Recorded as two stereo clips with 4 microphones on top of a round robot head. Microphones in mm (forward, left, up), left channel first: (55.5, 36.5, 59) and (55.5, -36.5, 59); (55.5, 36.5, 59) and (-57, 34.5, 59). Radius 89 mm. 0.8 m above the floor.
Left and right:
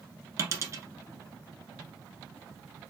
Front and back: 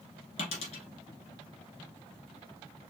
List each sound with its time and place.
0.4 s a dropped coin: 45° right, 2 m